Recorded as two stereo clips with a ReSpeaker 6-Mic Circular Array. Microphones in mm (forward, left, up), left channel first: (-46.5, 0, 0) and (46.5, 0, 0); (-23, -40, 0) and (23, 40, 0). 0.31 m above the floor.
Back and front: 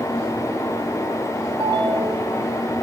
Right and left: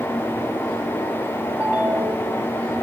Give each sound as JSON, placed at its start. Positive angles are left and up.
{"t": 1.6, "sound": "a ringtone", "azimuth_deg": -5, "distance_m": 1.7}